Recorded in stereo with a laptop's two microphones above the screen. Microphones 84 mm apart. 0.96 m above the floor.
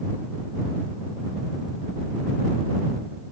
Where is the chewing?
No chewing in this recording.